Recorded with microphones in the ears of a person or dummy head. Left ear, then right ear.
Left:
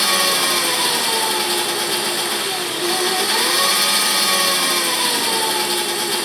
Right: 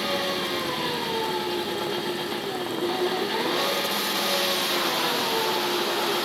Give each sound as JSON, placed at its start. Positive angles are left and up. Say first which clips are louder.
{"t": 0.0, "sound": "an engine running", "louder": "left 9 dB", "side_deg": 55, "distance_m": 1.7}